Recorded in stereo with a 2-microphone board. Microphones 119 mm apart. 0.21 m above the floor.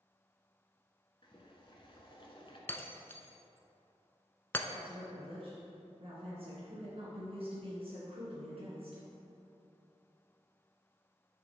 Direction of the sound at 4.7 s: 55° right (ahead or behind).